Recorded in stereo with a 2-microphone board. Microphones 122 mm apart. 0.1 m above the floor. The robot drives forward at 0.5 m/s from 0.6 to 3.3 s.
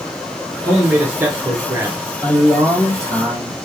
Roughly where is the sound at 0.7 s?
Centre.